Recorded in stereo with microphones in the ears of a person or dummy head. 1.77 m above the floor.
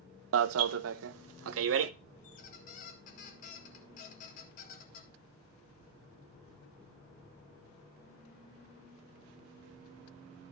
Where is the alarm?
75° right (ahead or behind), 0.6 m.